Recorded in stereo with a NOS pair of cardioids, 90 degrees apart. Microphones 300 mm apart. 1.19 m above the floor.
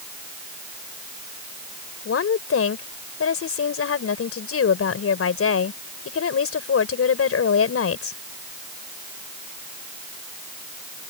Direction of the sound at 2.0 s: 50° left.